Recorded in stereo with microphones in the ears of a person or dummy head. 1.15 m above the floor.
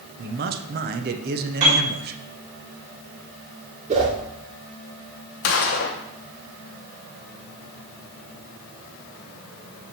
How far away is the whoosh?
About 2.5 m.